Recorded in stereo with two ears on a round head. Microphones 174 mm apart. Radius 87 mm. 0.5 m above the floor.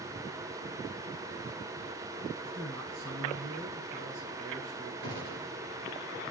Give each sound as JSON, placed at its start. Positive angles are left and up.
{"t": 2.4, "sound": "a man speaking", "side_deg": -75, "distance_m": 6.0}
{"t": 5.0, "sound": "a gunshot", "side_deg": -75, "distance_m": 4.0}